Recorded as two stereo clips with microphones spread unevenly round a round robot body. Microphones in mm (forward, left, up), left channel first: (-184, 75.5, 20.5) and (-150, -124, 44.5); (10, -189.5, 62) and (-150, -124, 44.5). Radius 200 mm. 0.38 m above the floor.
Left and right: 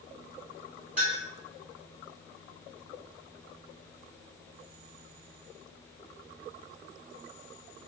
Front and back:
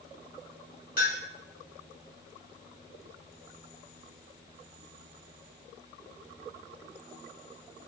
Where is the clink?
5° left, 1.2 m.